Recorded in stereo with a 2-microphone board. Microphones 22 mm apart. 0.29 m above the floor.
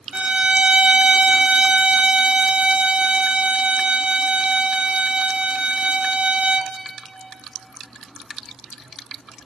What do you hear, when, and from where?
0.1 s a violin: 60° right (ahead or behind), 0.8 m